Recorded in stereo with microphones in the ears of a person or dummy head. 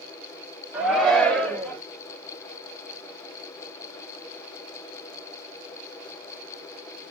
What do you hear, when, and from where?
0.7 s a shout: 10° right (ahead or behind), 0.8 m; by 1.8 s 10° left (ahead or behind), 1.3 m